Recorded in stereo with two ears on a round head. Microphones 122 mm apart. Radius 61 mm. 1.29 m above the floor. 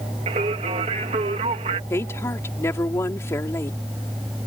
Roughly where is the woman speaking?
Left.